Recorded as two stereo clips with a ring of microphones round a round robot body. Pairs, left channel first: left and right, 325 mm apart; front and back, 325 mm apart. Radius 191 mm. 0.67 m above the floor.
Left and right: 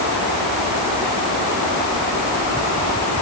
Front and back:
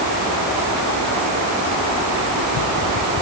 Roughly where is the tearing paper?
No tearing paper in this recording.